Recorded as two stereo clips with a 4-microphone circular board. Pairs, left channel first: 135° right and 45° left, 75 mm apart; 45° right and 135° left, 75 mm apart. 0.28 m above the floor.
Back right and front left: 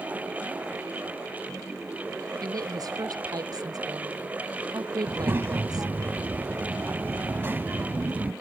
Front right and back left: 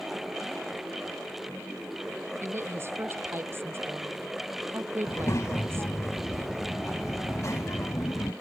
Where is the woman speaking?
75° left.